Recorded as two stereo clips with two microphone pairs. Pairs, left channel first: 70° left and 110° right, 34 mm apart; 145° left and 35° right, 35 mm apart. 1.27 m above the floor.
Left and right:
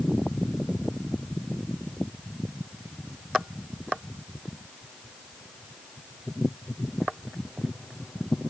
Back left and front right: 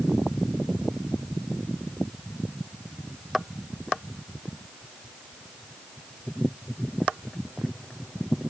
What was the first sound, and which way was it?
Only background noise.